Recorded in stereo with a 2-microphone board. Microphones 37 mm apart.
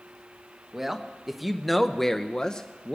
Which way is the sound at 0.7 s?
10° right (ahead or behind).